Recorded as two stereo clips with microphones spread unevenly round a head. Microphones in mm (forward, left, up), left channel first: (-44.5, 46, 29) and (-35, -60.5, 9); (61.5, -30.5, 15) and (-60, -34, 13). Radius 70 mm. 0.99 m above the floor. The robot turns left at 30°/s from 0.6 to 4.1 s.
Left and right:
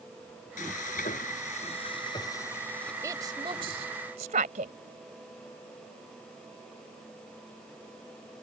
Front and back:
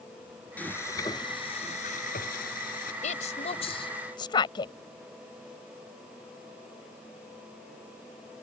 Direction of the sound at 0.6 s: 80° left.